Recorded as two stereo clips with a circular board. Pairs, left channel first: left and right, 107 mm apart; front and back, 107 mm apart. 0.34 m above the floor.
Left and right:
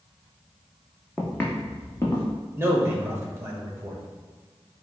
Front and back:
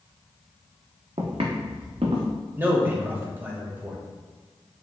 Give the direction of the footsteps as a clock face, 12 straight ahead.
6 o'clock.